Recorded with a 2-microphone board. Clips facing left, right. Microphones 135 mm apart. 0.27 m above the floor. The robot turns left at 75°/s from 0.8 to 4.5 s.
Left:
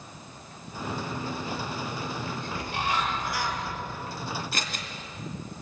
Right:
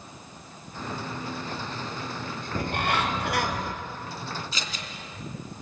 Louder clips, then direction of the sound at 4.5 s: Left 2 dB; 60° left (ahead or behind).